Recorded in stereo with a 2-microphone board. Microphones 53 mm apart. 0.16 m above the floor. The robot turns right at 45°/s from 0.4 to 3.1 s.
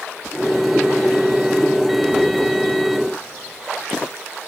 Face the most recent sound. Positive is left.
No sound to turn to.